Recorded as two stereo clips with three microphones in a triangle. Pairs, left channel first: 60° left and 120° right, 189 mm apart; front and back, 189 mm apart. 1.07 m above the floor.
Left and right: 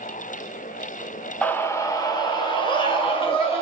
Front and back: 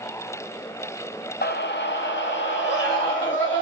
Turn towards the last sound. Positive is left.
turn(degrees=0)